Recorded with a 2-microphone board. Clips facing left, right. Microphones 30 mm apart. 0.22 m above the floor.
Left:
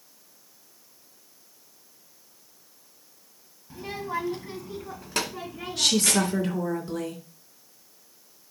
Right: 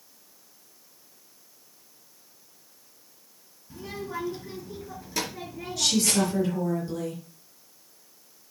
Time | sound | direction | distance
3.7 | a child speaking | 25° left (ahead or behind) | 1.2 m
5.8 | a woman speaking | 45° left (ahead or behind) | 3 m